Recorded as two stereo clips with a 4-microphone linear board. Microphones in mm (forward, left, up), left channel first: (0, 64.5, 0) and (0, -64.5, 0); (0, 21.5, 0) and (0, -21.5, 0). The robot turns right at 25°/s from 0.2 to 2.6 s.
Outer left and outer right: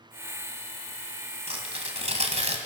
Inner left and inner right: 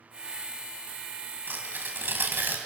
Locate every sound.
1.5 s tearing paper: 50° right (ahead or behind), 2.5 m; by 2.6 s 55° right (ahead or behind), 2.5 m